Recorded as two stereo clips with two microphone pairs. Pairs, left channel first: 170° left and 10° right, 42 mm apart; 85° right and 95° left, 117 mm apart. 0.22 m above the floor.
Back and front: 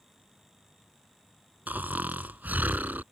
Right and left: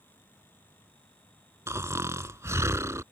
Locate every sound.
1.7 s snoring: 30° left